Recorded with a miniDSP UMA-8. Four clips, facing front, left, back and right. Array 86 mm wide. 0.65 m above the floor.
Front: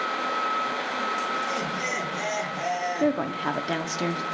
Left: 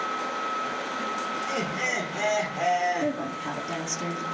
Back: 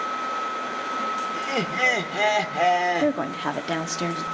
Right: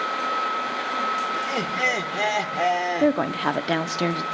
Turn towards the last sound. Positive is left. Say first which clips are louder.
# right 8 dB, back 1 dB
turn(degrees=-95)